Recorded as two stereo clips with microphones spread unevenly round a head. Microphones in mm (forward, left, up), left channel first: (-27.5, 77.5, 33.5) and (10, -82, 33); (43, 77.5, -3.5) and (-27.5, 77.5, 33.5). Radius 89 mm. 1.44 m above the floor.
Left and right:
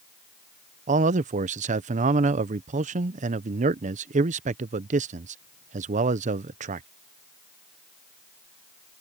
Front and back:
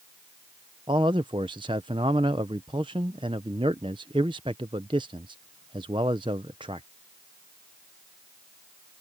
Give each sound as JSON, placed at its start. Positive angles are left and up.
{"t": 0.9, "sound": "a man speaking", "azimuth_deg": -125}